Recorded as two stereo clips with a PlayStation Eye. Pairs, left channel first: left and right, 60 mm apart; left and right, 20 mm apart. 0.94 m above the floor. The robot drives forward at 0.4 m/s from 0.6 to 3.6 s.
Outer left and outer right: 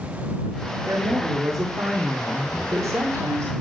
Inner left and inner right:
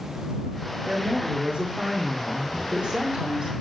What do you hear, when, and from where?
0.8 s a woman speaking: 80° right, 1.8 m; by 3.5 s 55° right (ahead or behind), 2 m
2.5 s a drawer: 55° left (ahead or behind), 3.5 m; by 2.7 s 50° left (ahead or behind), 3.5 m